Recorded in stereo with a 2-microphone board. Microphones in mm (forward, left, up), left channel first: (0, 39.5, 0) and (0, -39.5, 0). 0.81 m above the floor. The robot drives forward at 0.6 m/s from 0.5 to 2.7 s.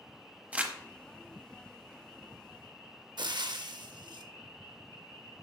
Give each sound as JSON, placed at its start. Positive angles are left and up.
{"t": 0.5, "sound": "crumpling", "side_deg": -20, "distance_m": 0.8}
{"t": 3.2, "sound": "frying", "side_deg": -65, "distance_m": 0.6}